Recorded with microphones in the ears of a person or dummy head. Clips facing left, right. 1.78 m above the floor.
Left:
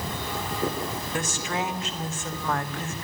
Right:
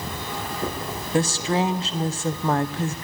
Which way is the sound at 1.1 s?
25° right (ahead or behind).